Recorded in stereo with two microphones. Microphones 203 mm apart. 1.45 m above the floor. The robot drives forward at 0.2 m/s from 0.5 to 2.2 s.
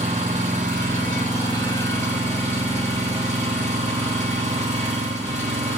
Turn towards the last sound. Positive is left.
turn(degrees=-35)  # may be behind; listen again after turning